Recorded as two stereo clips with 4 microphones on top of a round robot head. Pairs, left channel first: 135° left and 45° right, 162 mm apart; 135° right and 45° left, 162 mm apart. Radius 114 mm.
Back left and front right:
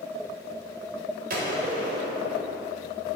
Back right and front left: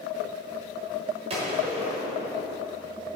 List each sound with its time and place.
1.3 s a gunshot: 10° right, 1.4 m